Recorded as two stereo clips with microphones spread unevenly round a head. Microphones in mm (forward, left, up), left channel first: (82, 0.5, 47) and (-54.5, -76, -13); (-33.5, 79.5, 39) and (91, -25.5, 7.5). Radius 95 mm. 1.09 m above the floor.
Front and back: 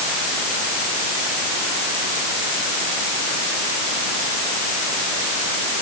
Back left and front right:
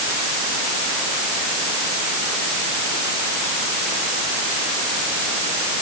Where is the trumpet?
No trumpet in this recording.